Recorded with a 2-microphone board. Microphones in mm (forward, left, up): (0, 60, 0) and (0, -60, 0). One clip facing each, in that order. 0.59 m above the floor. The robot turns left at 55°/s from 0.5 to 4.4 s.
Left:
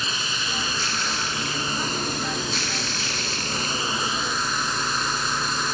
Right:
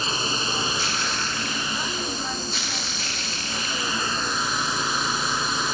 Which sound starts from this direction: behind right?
A drone, at 0.0 s.